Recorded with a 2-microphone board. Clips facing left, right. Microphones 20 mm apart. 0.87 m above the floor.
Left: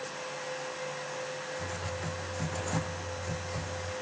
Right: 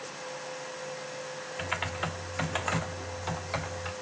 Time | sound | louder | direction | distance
1.6 | typing on a keyboard | right 4 dB | 80° right | 1.4 m